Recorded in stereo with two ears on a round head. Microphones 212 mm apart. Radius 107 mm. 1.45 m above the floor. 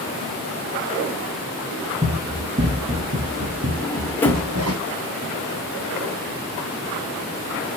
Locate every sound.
2.0 s running footsteps: 15° right (ahead or behind), 2.5 m; by 4.8 s 65° right (ahead or behind), 3.5 m
3.8 s a drawer: 10° left (ahead or behind), 1.4 m